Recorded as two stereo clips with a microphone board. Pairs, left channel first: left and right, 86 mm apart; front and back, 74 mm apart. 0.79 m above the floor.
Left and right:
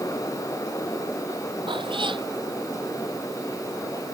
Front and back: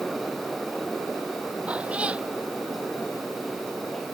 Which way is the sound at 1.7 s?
105° right.